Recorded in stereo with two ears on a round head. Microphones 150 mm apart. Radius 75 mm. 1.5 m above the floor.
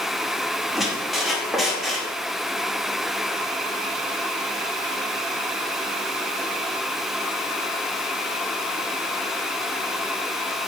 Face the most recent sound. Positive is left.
turn(degrees=0)  # may be behind; listen again after turning